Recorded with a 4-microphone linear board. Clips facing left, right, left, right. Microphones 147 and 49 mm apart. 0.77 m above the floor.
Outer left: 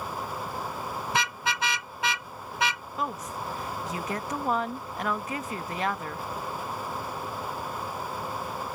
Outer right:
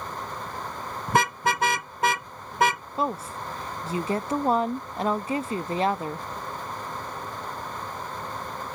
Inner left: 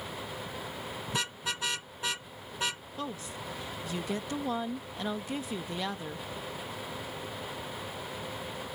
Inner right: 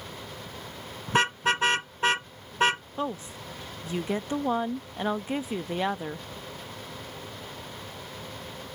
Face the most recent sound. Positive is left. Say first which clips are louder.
# outer right 4 dB, inner right 5 dB
turn(degrees=-30)  # may be behind; listen again after turning